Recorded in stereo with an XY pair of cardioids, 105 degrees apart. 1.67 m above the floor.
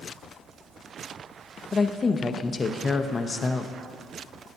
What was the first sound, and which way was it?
A woman speaking, 30° left.